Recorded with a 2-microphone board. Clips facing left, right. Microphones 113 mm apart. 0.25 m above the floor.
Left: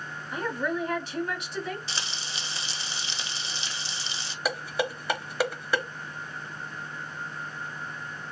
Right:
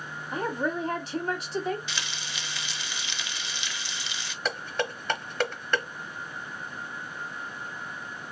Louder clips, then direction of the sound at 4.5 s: Left 2 dB; 10° left (ahead or behind).